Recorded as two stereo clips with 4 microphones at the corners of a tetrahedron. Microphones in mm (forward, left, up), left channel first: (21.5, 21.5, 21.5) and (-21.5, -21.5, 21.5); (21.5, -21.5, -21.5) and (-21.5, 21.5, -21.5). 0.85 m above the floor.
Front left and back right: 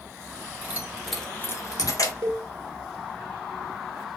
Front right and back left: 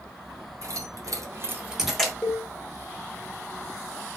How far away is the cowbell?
About 1.0 m.